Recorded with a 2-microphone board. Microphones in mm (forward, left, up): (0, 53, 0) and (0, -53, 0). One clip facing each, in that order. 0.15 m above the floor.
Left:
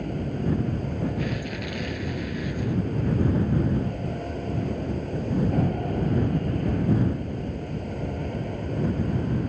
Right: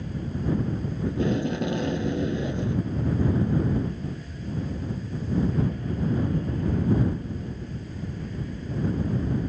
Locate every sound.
0.0 s an aircraft: 60° left (ahead or behind)
1.1 s tape being pulled: 30° right (ahead or behind)